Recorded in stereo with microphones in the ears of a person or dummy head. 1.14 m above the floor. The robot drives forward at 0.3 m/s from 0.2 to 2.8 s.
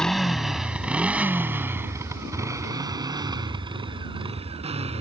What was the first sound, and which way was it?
A motorcycle, 5° left (ahead or behind).